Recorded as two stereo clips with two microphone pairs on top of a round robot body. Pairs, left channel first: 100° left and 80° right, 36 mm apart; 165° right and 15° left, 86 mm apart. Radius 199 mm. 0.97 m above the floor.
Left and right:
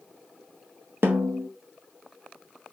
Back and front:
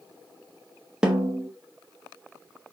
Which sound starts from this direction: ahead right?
A snare drum, at 1.0 s.